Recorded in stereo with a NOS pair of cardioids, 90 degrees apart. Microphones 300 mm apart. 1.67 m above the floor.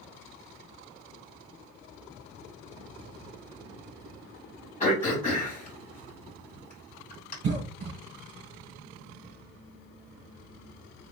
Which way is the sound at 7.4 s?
55° right.